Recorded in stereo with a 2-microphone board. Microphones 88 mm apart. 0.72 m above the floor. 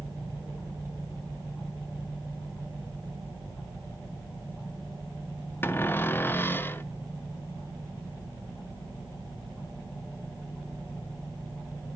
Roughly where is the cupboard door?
Left.